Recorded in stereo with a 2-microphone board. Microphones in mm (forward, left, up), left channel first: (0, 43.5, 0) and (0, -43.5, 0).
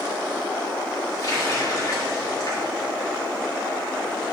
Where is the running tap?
45° left (ahead or behind), 2 m.